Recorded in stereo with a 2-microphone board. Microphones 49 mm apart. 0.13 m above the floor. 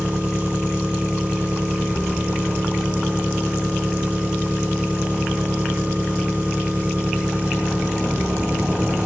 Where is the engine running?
25° right (ahead or behind), 4 m.